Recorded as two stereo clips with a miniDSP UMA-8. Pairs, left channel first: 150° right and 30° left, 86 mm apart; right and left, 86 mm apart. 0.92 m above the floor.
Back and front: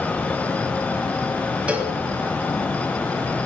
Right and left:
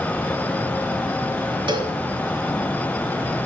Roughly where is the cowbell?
Left.